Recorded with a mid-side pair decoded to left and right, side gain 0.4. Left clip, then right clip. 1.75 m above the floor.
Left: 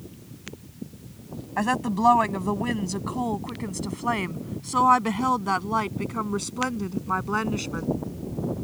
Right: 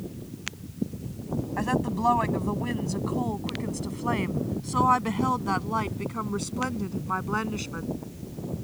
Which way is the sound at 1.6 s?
45° left.